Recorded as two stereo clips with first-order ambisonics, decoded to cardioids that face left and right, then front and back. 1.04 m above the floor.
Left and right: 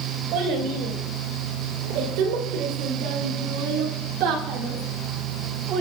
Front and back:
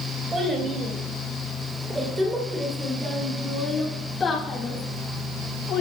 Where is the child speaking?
110° right, 4 m; by 5.8 s 45° right, 1.9 m.